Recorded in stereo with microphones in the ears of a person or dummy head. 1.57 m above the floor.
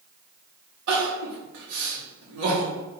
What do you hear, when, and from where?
0.9 s crying: 75° right (ahead or behind), 2.5 m